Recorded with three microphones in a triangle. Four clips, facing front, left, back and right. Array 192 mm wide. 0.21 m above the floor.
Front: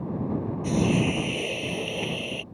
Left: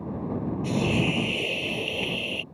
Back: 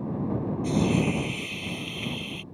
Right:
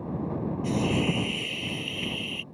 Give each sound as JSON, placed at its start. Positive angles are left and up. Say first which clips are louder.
{"t": 0.6, "sound": "a hiss", "louder": "left 1 dB, front 1 dB", "azimuth_deg": 45}